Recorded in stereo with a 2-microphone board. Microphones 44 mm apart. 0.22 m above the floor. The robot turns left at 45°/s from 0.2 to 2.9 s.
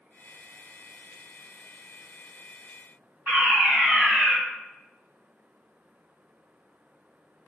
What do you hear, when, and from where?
3.3 s a fire alarm: 25° right (ahead or behind), 3 m